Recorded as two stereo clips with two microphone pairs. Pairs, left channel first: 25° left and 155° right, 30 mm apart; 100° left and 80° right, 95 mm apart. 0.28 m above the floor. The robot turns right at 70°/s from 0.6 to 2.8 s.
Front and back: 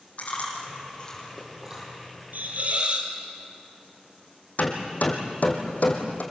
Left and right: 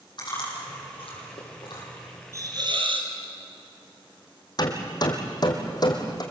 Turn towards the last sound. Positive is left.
turn(degrees=55)